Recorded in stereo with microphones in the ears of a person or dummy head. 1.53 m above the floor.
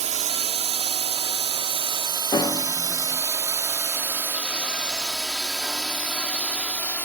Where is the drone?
40° right (ahead or behind); by 7.0 s 10° left (ahead or behind).